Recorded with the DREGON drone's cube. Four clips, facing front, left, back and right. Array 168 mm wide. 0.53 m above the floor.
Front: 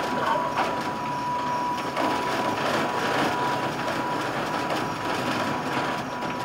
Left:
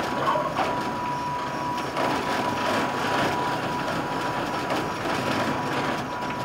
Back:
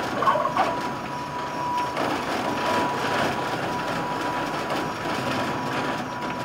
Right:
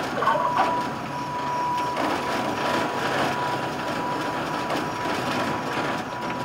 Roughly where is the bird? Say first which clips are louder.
Right 5 dB, back 5 dB; behind right.